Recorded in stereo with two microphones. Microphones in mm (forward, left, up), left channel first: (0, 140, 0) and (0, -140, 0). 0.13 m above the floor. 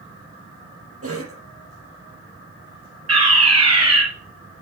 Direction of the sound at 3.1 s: 60° right (ahead or behind).